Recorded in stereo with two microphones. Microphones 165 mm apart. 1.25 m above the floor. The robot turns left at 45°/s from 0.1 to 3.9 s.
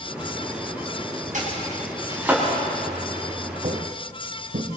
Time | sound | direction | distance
1.3 | chopping | 50° right (ahead or behind) | 6 m
3.6 | footsteps | 55° right (ahead or behind) | 2.0 m